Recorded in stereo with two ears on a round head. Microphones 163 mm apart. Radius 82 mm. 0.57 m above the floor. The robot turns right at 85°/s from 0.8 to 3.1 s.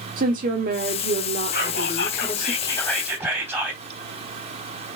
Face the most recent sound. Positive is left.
turn(degrees=-165)